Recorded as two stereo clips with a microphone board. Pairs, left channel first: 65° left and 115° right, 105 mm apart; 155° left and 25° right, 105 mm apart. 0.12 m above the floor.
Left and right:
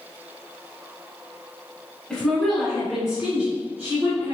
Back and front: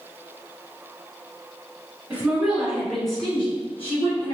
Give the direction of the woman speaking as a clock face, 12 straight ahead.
12 o'clock.